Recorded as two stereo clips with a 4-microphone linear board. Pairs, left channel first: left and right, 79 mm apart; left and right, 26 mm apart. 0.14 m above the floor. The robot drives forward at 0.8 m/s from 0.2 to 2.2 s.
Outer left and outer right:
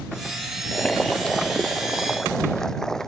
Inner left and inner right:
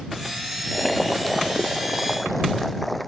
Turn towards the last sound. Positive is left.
turn(degrees=5)  # may be behind; listen again after turning